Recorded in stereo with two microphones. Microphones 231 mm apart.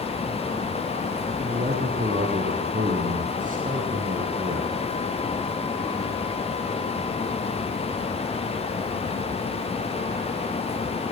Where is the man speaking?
35° right (ahead or behind), 4 m.